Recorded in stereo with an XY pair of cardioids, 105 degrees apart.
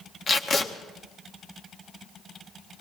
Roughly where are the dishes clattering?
I don't hear dishes clattering.